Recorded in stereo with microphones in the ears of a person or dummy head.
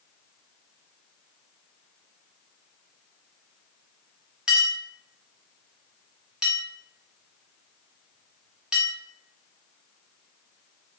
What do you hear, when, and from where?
4.5 s a clink: centre (ahead or behind), 1.9 m